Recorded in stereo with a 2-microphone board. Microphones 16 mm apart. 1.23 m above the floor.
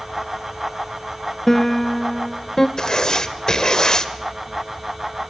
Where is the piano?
25° left (ahead or behind), 0.8 m.